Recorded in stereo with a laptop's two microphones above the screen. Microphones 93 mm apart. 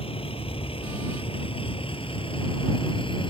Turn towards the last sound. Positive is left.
turn(degrees=65)  # may be behind; listen again after turning